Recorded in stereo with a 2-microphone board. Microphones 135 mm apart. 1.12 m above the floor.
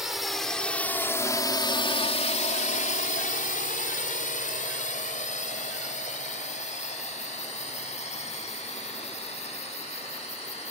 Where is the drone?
5° right (ahead or behind); by 10.7 s 50° left (ahead or behind).